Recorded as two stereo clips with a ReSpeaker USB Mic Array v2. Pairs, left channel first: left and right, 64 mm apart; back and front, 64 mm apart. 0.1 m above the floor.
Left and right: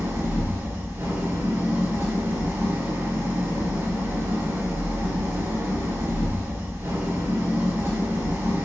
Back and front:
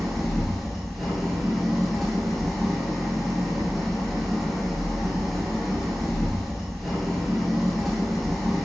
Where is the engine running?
95° right, 1.2 m.